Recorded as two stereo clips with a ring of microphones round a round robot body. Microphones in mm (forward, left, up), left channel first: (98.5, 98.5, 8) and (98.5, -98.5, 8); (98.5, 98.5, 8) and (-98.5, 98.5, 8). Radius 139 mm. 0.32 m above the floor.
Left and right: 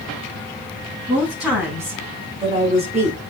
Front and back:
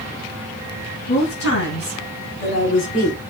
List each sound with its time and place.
1.1 s a woman speaking: 5° right, 3.5 m; by 3.2 s 45° right, 2.5 m